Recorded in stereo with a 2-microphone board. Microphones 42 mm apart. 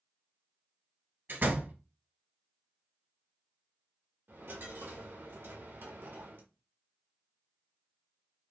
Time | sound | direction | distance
1.3 | a door slam | 55° right (ahead or behind) | 1.6 m
4.3 | a dropped coin | 55° right (ahead or behind) | 1.4 m